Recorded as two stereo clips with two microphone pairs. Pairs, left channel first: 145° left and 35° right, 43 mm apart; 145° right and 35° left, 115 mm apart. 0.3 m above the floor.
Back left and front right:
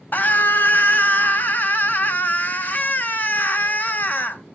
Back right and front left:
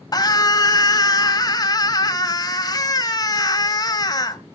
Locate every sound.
0.1 s a scream: 175° left, 1.3 m